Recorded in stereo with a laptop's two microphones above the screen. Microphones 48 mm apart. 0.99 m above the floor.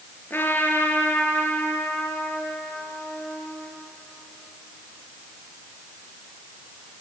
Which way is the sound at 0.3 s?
45° left (ahead or behind).